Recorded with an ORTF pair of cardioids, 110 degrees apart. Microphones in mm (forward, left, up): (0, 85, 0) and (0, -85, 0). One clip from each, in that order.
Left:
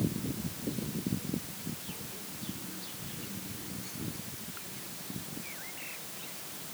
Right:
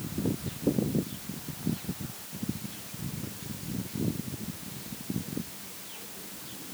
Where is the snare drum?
No snare drum in this recording.